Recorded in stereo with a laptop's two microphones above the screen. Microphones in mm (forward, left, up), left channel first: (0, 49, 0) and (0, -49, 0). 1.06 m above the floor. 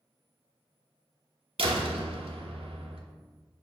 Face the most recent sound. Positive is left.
turn(degrees=-80)